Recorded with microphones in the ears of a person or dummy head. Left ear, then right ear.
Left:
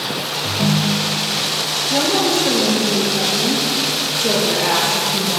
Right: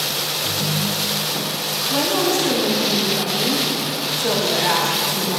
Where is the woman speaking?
15° left (ahead or behind), 6 m.